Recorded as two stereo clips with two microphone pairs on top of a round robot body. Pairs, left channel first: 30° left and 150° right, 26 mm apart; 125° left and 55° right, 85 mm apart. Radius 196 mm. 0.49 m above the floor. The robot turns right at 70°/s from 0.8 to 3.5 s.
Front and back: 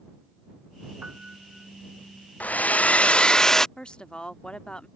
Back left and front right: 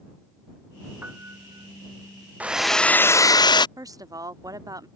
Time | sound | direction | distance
1.0 | a piano | 120° right | ?
2.4 | a hair dryer | 20° left | ?
3.8 | a woman speaking | 20° right | ?